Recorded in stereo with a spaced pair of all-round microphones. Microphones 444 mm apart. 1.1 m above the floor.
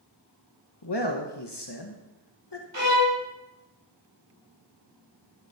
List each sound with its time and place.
0.8 s a man speaking: 60° left (ahead or behind), 1.2 m
2.7 s a violin: 70° right (ahead or behind), 2.5 m